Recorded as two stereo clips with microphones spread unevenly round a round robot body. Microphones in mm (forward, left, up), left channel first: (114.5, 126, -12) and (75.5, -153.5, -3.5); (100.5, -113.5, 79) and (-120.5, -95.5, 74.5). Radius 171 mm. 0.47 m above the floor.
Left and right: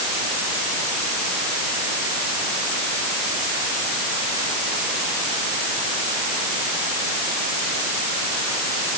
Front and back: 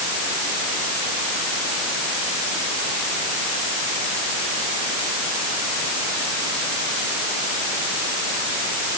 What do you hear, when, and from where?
Only background noise.